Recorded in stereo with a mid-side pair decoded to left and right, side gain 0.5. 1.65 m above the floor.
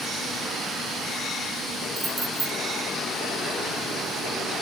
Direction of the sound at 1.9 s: 35° right.